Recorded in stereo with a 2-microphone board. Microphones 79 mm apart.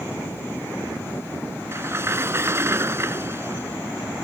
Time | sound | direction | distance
1.7 | a sliding door | 35° right (ahead or behind) | ?